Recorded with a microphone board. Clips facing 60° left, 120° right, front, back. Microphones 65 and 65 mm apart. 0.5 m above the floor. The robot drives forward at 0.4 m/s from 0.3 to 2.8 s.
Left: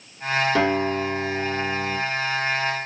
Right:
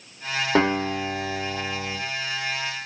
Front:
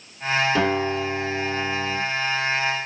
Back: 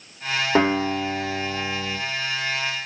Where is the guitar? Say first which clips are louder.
Left 1 dB, back 2 dB; 155° right, 1.4 m; by 2.0 s 165° right, 1.9 m.